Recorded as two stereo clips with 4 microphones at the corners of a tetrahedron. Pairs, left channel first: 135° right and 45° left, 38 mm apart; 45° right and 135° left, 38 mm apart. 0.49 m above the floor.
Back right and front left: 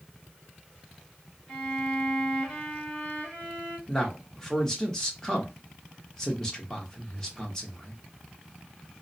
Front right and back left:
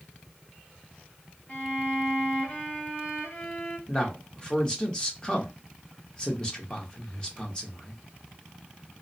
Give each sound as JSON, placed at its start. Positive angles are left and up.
{"t": 1.5, "sound": "a violin", "azimuth_deg": -35, "distance_m": 1.7}
{"t": 3.9, "sound": "a man speaking", "azimuth_deg": -85, "distance_m": 0.8}